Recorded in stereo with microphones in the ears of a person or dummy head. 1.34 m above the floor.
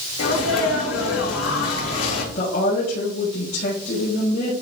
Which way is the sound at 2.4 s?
45° left (ahead or behind).